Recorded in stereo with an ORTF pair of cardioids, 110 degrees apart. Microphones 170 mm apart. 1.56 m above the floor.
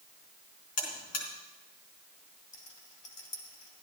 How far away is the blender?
I don't hear a blender.